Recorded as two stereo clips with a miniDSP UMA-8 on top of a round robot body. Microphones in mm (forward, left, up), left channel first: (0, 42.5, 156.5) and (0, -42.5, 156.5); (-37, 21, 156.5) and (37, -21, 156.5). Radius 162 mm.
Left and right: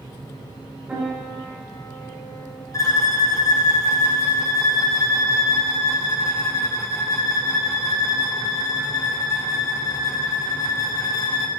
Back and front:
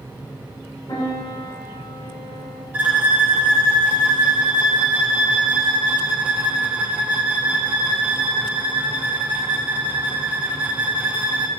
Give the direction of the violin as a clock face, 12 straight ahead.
11 o'clock.